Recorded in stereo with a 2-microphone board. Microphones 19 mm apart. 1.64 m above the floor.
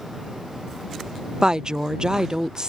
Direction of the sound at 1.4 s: 40° right (ahead or behind).